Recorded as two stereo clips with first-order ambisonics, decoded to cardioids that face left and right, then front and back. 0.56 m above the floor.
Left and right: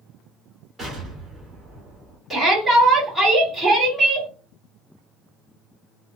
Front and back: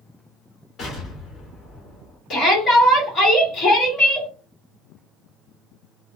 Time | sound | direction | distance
0.8 | an explosion | 25° right | 1.3 m
2.3 | a shout | 10° left | 1.3 m